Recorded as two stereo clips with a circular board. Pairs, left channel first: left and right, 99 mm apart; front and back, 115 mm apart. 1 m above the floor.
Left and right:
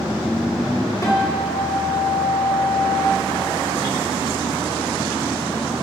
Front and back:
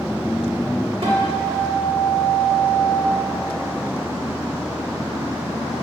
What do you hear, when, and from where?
1.0 s a guitar: 140° left, 1.4 m